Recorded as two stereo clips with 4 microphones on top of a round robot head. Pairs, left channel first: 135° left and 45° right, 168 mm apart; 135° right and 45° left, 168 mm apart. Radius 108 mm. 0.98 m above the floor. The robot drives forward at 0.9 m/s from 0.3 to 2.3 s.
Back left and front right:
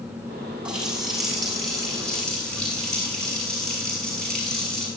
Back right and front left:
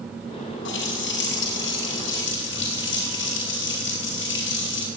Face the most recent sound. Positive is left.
turn(degrees=-140)